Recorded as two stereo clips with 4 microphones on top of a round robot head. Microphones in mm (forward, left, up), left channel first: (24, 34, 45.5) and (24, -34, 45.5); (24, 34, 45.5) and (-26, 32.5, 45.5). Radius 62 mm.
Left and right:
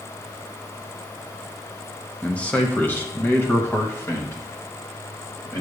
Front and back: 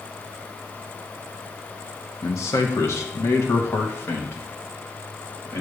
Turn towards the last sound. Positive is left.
turn(degrees=40)